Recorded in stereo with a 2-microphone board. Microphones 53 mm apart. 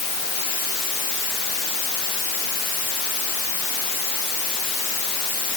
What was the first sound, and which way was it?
Only background noise.